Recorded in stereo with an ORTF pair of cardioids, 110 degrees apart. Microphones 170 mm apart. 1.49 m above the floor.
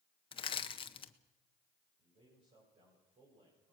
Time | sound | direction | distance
0.3 | crushing | 30° left | 1.2 m
2.0 | a man speaking | 40° right | 7 m